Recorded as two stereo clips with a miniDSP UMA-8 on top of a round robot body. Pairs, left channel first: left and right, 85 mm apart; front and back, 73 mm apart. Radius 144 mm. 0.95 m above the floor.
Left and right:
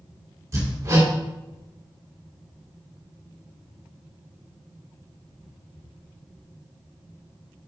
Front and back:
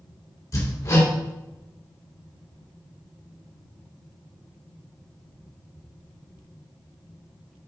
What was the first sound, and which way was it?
Hammering, 40° right.